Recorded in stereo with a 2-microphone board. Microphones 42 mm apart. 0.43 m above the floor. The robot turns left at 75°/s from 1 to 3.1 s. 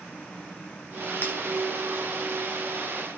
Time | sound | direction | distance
1.2 | breaking glass | 45° left (ahead or behind) | 1.9 m